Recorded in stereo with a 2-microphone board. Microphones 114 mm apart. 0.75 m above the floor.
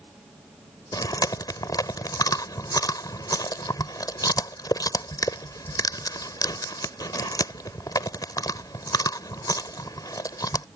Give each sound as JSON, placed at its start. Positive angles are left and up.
{"t": 0.9, "sound": "chewing", "side_deg": 35}